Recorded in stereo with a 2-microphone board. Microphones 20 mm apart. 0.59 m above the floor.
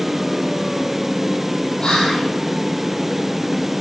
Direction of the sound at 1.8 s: 65° left (ahead or behind).